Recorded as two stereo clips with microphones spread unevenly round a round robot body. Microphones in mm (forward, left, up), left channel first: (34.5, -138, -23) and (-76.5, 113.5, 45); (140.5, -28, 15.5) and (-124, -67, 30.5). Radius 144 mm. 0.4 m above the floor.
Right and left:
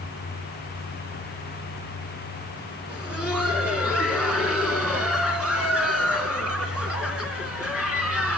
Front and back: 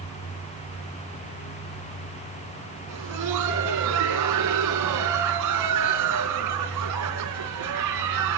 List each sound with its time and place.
2.9 s laughter: 155° right, 4 m